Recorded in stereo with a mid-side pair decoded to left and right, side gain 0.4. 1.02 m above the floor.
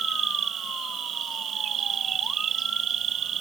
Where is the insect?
65° right.